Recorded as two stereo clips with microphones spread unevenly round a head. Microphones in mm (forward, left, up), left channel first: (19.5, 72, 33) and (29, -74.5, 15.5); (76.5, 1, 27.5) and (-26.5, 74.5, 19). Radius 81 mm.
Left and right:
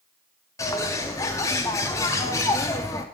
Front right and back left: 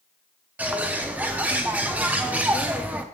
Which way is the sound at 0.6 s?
70° left.